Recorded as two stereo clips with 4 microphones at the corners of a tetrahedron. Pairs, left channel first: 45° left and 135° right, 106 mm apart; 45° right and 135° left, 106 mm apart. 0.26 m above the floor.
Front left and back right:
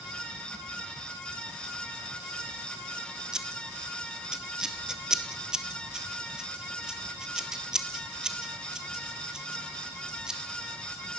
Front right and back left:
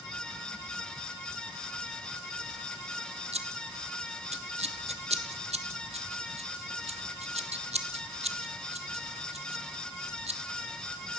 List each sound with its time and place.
3.3 s scissors: 140° left, 1.8 m